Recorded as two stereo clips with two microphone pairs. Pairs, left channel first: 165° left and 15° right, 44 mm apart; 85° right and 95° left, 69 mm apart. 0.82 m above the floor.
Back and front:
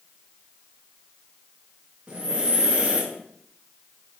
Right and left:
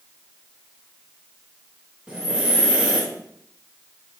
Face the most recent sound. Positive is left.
turn(degrees=35)